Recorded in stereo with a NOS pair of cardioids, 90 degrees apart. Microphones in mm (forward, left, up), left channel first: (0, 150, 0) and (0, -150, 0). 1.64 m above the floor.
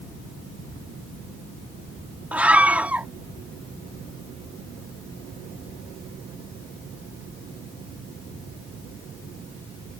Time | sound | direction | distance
2.3 | a scream | 5° right | ?